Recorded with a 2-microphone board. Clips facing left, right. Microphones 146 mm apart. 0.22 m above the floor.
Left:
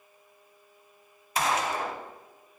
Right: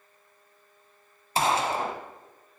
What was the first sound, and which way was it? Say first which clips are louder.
A gunshot: right 3 dB; 30° right (ahead or behind).